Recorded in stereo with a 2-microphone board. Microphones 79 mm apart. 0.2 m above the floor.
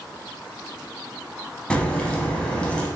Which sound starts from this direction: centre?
A crack, at 1.7 s.